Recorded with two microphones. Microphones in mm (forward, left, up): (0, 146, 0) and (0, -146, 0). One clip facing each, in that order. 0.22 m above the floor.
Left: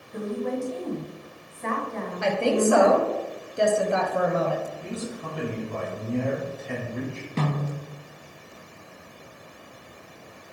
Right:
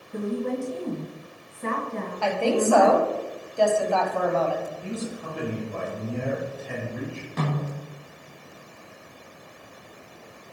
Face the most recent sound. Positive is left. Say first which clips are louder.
# left 1 dB
turn(degrees=30)  # may be behind; listen again after turning